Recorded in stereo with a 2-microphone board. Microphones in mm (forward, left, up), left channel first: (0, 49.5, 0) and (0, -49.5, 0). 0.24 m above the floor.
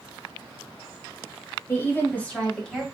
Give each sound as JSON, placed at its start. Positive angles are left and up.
{"t": 1.7, "sound": "a woman speaking", "side_deg": 25, "distance_m": 1.3}